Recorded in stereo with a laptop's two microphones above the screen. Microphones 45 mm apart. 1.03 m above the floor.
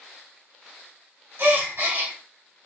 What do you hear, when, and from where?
1.4 s a gasp: 60° right (ahead or behind), 1.4 m